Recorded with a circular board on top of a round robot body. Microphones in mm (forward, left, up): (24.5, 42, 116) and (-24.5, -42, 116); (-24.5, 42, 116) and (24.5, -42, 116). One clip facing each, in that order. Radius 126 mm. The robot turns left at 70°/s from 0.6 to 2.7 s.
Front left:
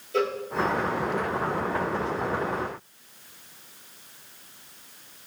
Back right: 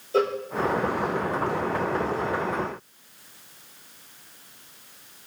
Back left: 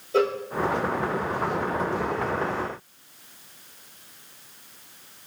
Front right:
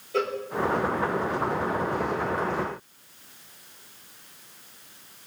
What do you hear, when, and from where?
0.1 s a cowbell: 175° right, 0.7 m